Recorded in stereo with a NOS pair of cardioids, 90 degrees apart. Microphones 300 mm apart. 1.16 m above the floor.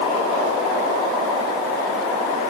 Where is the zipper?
I don't hear a zipper.